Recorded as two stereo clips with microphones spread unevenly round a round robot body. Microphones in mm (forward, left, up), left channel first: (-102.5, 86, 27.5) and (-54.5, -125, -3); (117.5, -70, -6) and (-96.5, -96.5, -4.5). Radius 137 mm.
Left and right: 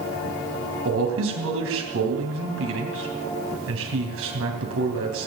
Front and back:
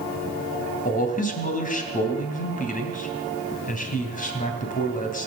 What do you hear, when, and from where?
0.8 s a man speaking: 45° right, 3 m